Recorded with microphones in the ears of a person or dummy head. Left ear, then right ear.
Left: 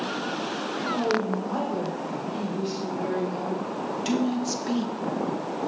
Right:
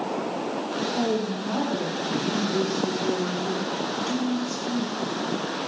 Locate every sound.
0.8 s a woman speaking: 65° left (ahead or behind), 4.5 m